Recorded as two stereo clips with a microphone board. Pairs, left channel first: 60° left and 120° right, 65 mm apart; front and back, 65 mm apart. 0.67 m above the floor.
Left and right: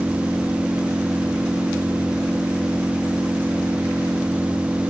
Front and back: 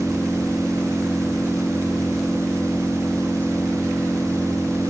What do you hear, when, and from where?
0.0 s an engine running: 60° right